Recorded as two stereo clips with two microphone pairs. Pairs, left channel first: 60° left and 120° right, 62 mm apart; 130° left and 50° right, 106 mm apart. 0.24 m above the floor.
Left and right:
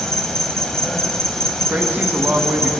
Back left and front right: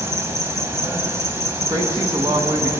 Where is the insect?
15° right, 0.9 m.